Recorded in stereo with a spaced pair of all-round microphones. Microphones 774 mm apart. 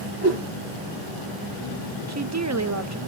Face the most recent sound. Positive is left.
turn(degrees=-25)  # may be behind; listen again after turning